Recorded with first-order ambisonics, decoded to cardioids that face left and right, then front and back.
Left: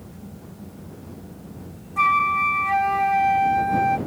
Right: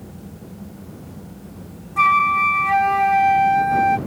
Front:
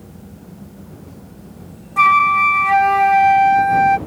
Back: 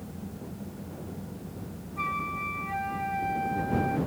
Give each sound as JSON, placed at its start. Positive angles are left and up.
{"t": 2.0, "sound": "a flute", "azimuth_deg": -10}